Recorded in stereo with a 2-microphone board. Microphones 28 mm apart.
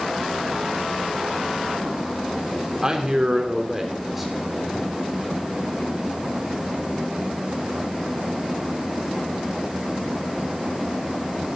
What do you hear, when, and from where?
2.8 s a man speaking: 25° right (ahead or behind), 2 m; by 4.9 s 5° left (ahead or behind), 2.5 m